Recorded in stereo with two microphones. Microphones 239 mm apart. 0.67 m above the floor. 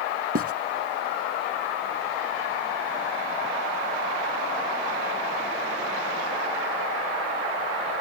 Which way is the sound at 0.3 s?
65° right (ahead or behind).